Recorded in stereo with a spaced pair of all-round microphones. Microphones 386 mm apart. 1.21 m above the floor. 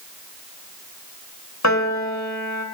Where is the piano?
45° left (ahead or behind), 3 m.